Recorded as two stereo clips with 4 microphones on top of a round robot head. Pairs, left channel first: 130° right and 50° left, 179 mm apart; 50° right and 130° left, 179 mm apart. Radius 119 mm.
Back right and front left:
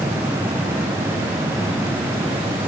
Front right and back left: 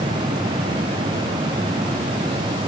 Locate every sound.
Only background noise.